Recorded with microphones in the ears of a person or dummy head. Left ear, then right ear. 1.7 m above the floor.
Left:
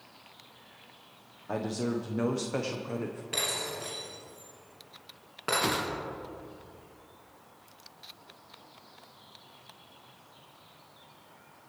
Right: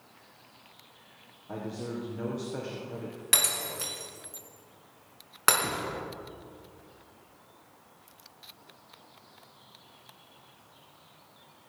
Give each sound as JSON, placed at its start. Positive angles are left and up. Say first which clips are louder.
{"t": 1.5, "sound": "a man speaking", "louder": "left 5 dB", "side_deg": 80, "distance_m": 1.4}
{"t": 3.3, "sound": "breaking glass", "louder": "right 4 dB", "side_deg": -60, "distance_m": 5.0}
{"t": 5.6, "sound": "a whoosh", "louder": "left 4 dB", "side_deg": 45, "distance_m": 1.3}